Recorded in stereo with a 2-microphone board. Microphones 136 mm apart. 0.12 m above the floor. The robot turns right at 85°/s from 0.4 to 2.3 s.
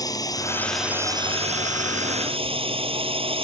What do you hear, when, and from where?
0.0 s a drone: 150° left; by 3.5 s 50° right